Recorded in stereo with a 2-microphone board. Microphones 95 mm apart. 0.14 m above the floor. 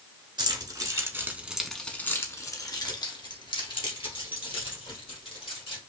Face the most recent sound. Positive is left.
turn(degrees=75)  # may be behind; listen again after turning